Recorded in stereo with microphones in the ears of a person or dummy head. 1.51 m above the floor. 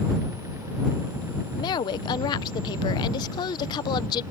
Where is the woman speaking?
20° left (ahead or behind).